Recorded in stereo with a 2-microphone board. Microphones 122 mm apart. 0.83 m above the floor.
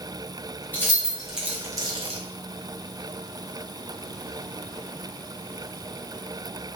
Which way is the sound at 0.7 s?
20° left (ahead or behind).